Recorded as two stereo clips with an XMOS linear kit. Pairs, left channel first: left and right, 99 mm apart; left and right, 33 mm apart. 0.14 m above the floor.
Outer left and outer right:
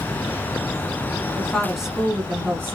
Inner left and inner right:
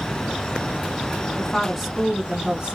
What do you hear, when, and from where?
1.4 s a woman speaking: 10° left (ahead or behind), 1.3 m; by 2.8 s 25° right (ahead or behind), 1.5 m